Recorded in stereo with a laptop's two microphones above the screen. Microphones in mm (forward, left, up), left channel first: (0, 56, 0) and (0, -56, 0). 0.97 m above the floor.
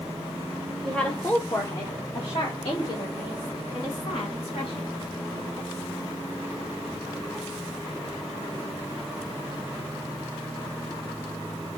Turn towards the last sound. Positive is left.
turn(degrees=80)